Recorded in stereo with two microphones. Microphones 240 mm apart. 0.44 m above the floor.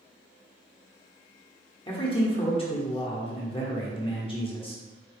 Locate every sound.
1.9 s a man speaking: 20° left (ahead or behind), 0.9 m